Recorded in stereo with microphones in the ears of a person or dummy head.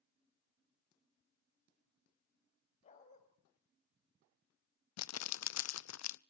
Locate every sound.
2.8 s a dog barking: 40° left (ahead or behind), 3.5 m
5.0 s crumpling: 80° left, 0.6 m